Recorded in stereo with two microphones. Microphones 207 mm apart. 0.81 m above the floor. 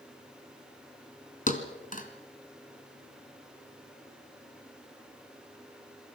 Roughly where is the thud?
Left.